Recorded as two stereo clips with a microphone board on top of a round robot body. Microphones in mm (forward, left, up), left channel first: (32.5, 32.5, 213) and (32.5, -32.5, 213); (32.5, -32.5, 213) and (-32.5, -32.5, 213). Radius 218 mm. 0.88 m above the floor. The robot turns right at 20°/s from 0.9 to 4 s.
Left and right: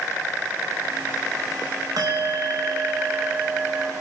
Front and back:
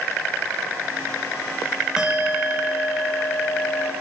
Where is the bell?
105° right, 1.7 m; by 3.9 s 65° right, 1.7 m.